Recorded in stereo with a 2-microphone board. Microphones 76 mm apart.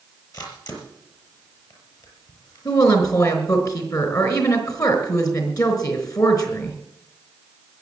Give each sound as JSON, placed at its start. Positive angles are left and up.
{"t": 0.3, "sound": "a camera shutter", "side_deg": 50, "distance_m": 5.5}
{"t": 2.6, "sound": "a woman speaking", "side_deg": 45, "distance_m": 4.0}